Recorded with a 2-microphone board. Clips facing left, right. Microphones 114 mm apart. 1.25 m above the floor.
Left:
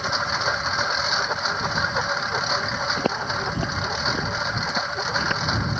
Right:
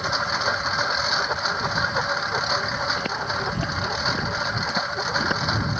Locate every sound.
0.0 s a lawn mower: centre (ahead or behind)
3.0 s footsteps: 35° left (ahead or behind); by 5.4 s 15° right (ahead or behind)